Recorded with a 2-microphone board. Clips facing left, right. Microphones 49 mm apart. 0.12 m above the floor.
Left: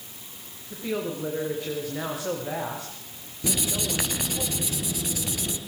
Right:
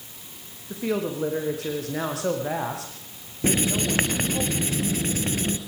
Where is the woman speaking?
80° right, 9 m.